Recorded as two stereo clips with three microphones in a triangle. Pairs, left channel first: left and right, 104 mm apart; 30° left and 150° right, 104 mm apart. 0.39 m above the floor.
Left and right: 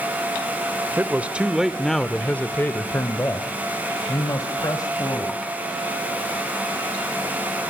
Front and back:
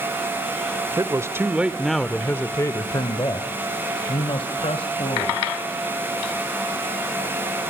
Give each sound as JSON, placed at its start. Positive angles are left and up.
{"t": 1.0, "sound": "a man speaking", "azimuth_deg": -145, "distance_m": 1.1}